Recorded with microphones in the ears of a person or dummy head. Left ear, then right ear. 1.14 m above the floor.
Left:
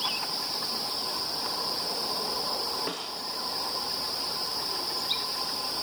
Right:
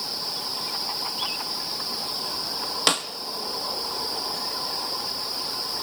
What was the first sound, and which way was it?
A snare drum, 55° right (ahead or behind).